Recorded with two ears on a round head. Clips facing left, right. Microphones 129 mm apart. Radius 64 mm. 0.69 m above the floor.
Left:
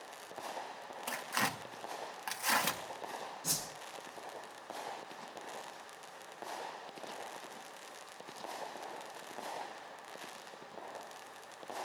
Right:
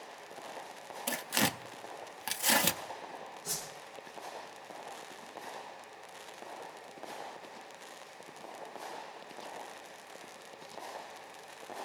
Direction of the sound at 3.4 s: 75° left (ahead or behind).